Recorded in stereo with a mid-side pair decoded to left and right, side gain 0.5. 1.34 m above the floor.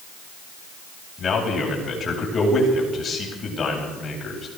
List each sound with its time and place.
1.2 s a man speaking: 35° left, 9 m